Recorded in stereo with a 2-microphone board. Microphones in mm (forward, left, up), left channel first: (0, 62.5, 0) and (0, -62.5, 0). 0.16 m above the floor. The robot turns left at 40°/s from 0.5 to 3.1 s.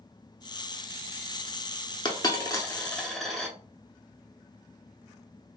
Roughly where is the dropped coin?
Left.